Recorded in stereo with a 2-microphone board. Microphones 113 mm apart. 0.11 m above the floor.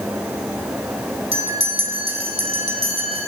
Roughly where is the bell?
Right.